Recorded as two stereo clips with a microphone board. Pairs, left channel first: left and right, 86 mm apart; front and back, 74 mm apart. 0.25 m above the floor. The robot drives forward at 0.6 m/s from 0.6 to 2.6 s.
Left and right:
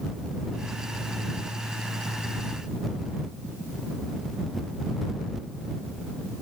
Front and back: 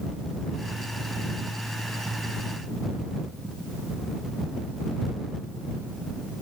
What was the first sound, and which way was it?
Only background noise.